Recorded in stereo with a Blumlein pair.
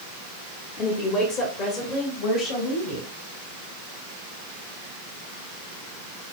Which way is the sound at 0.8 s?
25° left.